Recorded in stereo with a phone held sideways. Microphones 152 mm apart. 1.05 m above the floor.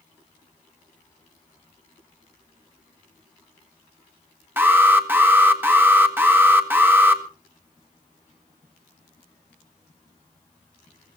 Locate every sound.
4.6 s an alarm: 15° right (ahead or behind), 1.7 m